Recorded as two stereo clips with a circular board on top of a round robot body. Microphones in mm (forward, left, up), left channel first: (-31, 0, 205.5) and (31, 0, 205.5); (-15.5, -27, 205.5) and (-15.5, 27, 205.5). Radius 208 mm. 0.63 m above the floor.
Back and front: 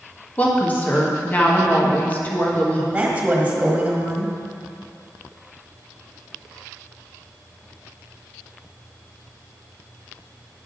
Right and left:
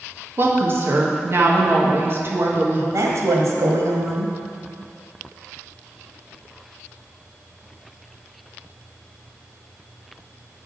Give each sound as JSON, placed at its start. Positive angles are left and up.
{"t": 0.4, "sound": "a woman speaking", "azimuth_deg": 120, "distance_m": 1.6}
{"t": 2.9, "sound": "a woman speaking", "azimuth_deg": 70, "distance_m": 1.6}